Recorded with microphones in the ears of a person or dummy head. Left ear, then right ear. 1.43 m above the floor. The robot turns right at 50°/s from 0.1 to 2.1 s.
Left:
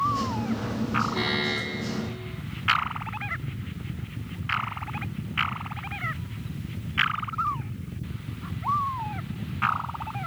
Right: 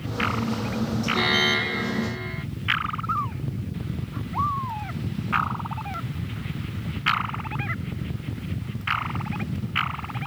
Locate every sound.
1.1 s an alarm: 165° right; by 2.5 s 115° right